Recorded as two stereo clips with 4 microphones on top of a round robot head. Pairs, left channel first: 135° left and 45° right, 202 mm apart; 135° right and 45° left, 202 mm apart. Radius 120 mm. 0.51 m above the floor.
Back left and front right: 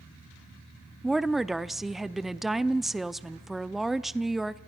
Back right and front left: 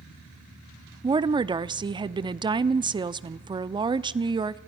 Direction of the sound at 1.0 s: 40° left.